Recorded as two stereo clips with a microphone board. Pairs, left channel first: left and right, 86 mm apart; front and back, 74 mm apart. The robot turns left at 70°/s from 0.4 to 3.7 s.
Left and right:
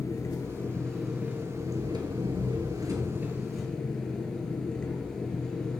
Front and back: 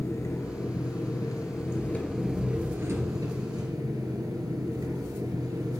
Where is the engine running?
40° left, 2.5 m; by 5.8 s 170° left, 2.5 m.